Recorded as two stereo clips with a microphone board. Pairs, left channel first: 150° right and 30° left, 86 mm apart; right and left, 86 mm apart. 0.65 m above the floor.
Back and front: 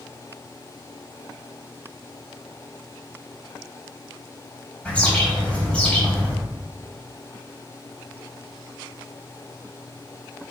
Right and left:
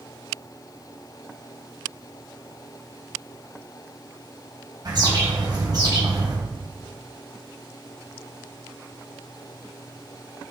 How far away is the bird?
About 3.5 m.